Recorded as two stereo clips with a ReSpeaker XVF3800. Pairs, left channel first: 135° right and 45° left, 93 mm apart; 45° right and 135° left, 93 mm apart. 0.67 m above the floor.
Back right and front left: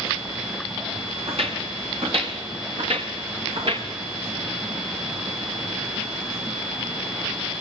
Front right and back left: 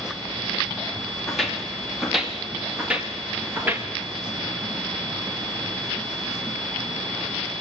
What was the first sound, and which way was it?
Footsteps, 40° left.